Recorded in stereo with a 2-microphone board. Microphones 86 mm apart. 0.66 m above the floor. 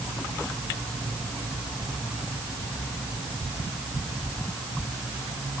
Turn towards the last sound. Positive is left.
No sound to turn to.